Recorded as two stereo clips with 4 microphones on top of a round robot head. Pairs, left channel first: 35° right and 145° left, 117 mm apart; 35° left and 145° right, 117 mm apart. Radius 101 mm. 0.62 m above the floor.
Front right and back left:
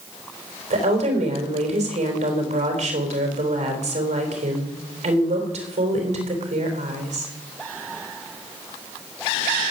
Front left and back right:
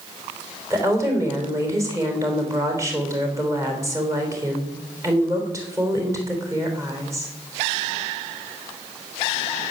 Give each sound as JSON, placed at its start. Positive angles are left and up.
{"t": 0.7, "sound": "a woman speaking", "azimuth_deg": 155, "distance_m": 3.5}